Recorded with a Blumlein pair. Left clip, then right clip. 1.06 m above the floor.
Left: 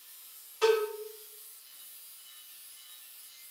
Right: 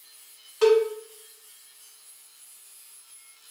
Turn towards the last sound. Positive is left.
turn(degrees=-40)